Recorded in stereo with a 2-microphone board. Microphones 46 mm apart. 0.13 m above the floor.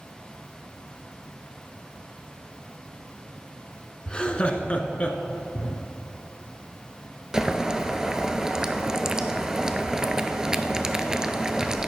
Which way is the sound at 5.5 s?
55° left (ahead or behind).